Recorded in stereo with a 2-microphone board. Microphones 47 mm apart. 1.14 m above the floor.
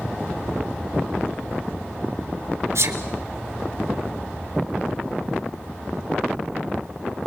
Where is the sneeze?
70° right (ahead or behind), 4 m.